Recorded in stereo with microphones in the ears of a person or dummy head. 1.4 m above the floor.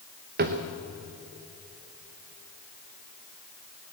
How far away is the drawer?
About 0.7 m.